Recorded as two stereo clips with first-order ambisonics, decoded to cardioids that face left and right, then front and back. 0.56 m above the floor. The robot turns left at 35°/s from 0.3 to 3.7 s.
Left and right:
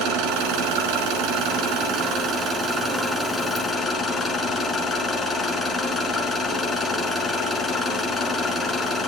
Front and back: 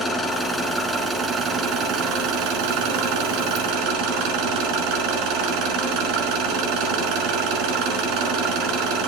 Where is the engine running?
75° right, 4.5 m; by 9.1 s 165° left, 4.5 m.